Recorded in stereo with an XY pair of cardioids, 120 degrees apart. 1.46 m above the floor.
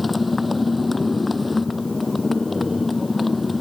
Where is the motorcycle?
15° left.